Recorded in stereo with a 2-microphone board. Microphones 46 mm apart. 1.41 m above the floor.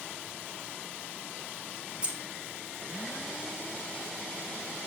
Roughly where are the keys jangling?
Right.